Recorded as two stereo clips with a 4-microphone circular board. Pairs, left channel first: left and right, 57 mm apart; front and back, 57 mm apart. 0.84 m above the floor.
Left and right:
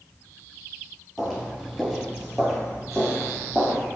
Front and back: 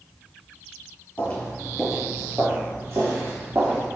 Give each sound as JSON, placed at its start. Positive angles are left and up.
{"t": 1.2, "sound": "footsteps", "azimuth_deg": 5, "distance_m": 0.9}